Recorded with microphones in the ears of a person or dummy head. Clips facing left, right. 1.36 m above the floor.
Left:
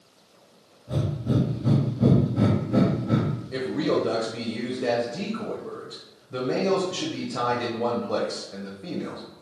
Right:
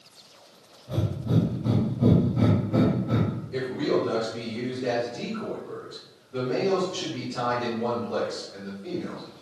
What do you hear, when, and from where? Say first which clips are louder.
0.9 s breathing: left 1 dB; 15° left (ahead or behind), 1.0 m
3.5 s a man speaking: left 1 dB; 75° left (ahead or behind), 0.8 m